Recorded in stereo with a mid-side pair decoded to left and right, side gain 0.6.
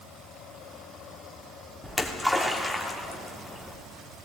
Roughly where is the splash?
Ahead.